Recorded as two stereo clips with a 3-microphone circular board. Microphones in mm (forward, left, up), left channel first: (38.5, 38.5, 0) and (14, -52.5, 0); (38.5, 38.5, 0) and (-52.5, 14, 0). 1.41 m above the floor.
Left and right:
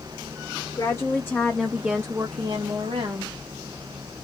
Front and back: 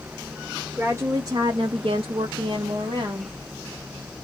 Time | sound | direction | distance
0.8 | a woman speaking | 125° left | 0.8 m